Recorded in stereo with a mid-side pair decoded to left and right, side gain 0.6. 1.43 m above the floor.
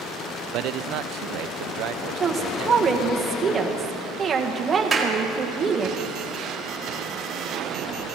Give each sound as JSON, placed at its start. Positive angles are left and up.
{"t": 0.5, "sound": "a man speaking", "azimuth_deg": -65, "distance_m": 0.5}
{"t": 2.2, "sound": "a woman speaking", "azimuth_deg": -25, "distance_m": 1.7}
{"t": 4.9, "sound": "a clap", "azimuth_deg": -20, "distance_m": 2.0}